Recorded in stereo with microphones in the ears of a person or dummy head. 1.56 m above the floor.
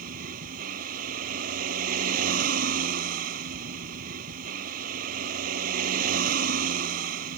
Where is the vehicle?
55° right (ahead or behind).